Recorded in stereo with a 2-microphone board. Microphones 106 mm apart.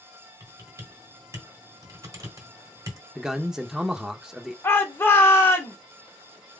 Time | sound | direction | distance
0.4 | typing on a keyboard | 35° right (ahead or behind) | 1.3 m
3.1 | a man speaking | 5° right (ahead or behind) | 0.7 m
4.6 | a shout | 20° left (ahead or behind) | 1.3 m